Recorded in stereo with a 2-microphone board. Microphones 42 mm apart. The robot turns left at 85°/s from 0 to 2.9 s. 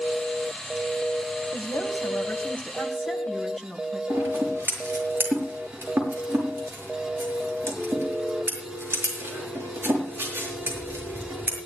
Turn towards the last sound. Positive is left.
turn(degrees=-50)  # may be behind; listen again after turning